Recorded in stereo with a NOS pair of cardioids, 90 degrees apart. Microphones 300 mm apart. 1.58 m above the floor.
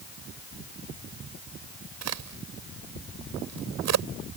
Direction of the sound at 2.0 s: 60° right.